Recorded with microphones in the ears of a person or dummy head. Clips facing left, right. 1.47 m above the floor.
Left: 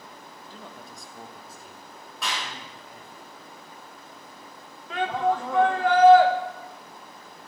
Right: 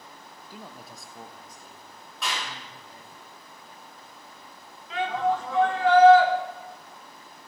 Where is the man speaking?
5° right (ahead or behind), 0.6 m; by 3.2 s 20° left (ahead or behind), 1.9 m.